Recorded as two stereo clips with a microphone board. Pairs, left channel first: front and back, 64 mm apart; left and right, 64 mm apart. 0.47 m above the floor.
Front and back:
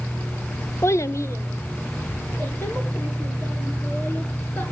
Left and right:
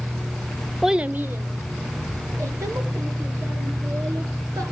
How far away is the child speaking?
About 0.5 m.